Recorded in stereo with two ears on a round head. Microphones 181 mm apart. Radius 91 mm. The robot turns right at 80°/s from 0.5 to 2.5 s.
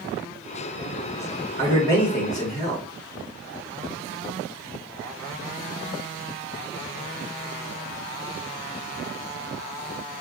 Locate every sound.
1.6 s a man speaking: 45° right, 1.8 m; by 2.9 s 30° left, 1.8 m